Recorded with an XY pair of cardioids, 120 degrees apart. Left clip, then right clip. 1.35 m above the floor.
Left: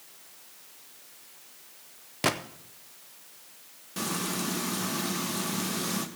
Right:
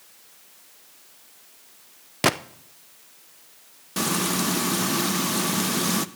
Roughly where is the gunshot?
Ahead right.